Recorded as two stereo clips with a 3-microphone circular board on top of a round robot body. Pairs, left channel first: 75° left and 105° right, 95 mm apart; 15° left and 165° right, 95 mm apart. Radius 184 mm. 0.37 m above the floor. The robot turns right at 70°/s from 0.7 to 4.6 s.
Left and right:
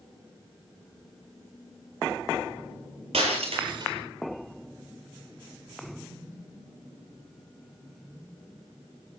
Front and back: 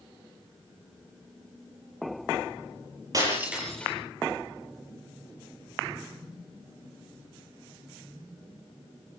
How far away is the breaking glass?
About 9.5 m.